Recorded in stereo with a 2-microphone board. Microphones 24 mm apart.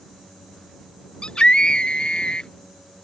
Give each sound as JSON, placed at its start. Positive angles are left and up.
{"t": 1.2, "sound": "a scream", "side_deg": 50}